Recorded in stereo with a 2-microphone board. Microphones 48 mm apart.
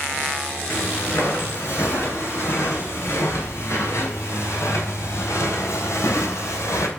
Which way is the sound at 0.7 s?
65° left (ahead or behind).